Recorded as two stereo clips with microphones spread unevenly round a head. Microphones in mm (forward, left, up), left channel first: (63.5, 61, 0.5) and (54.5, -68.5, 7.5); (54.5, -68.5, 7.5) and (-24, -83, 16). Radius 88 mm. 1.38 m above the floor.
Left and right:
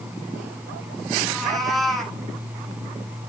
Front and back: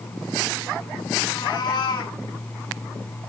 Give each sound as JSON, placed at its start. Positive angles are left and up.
{"t": 1.2, "sound": "a cat meowing", "azimuth_deg": -5, "distance_m": 2.0}